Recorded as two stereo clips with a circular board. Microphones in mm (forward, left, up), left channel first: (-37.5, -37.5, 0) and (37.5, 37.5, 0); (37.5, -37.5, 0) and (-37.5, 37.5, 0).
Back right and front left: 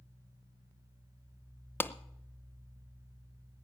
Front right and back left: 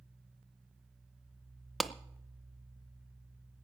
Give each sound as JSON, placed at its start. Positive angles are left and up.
{"t": 1.8, "sound": "a clap", "azimuth_deg": -135, "distance_m": 0.7}